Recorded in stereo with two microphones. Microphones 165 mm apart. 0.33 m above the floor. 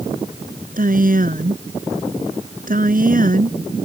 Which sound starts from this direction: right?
A woman speaking, at 0.8 s.